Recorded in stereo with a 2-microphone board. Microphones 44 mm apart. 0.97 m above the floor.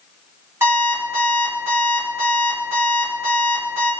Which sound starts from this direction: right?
An alarm clock, at 0.6 s.